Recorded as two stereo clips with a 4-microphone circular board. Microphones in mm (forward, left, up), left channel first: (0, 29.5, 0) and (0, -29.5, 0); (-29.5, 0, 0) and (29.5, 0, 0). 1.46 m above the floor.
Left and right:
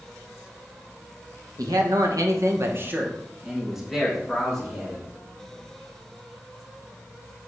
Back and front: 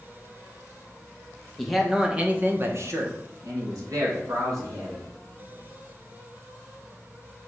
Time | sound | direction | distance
1.6 | a man speaking | 90° right | 1.7 m